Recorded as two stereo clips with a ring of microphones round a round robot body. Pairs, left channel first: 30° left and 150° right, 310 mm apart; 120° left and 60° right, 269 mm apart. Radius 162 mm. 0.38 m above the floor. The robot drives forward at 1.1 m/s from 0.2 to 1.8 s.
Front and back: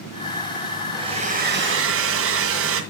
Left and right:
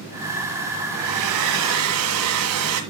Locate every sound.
0.9 s a hair dryer: 70° right, 2 m; by 2.8 s 100° right, 2.0 m